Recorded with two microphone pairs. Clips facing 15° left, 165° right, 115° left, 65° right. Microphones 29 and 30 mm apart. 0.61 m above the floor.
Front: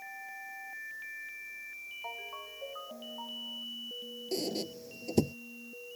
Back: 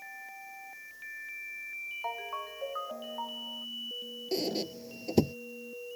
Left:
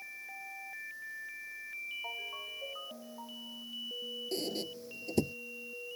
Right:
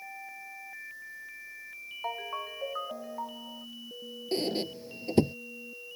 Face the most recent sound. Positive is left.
turn(degrees=-95)